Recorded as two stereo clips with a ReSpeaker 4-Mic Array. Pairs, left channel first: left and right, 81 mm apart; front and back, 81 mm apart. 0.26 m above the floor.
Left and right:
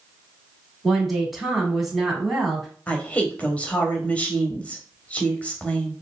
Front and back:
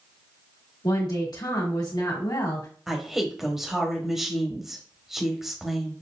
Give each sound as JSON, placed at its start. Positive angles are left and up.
{"t": 0.8, "sound": "a woman speaking", "azimuth_deg": 0, "distance_m": 1.9}
{"t": 2.9, "sound": "a woman speaking", "azimuth_deg": 105, "distance_m": 1.0}